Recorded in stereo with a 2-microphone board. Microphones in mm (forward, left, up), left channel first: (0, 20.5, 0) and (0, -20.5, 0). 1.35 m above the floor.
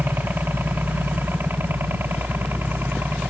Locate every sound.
0.0 s a helicopter: 55° right (ahead or behind)